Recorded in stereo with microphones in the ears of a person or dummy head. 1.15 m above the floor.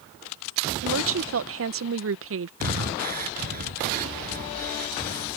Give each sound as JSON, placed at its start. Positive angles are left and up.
{"t": 0.8, "sound": "a woman speaking", "side_deg": -55}
{"t": 2.6, "sound": "breathing", "side_deg": -45}